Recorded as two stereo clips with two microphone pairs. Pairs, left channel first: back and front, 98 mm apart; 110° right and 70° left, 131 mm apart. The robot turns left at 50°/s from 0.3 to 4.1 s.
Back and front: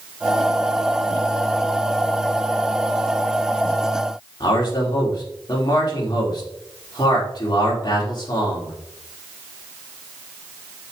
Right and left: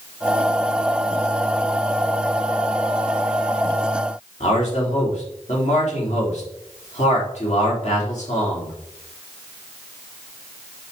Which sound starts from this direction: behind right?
A man speaking, at 4.4 s.